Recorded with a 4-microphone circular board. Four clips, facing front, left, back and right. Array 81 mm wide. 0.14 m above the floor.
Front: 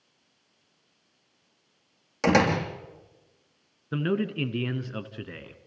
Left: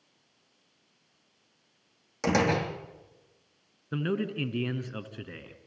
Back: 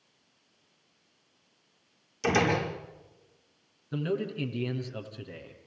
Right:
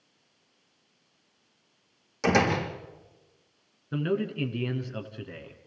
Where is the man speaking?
20° left, 1.8 m.